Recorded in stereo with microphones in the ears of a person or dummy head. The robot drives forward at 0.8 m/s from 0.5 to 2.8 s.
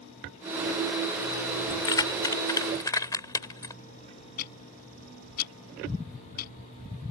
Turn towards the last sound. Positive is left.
turn(degrees=50)  # may be behind; listen again after turning